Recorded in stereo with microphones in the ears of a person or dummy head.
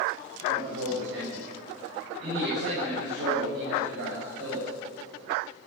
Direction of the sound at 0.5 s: 75° right (ahead or behind).